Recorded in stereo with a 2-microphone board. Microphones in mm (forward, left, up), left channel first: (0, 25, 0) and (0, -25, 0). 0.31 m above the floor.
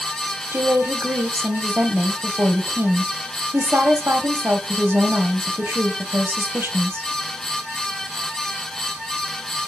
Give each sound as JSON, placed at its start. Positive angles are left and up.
{"t": 0.5, "sound": "a woman speaking", "side_deg": -55, "distance_m": 1.4}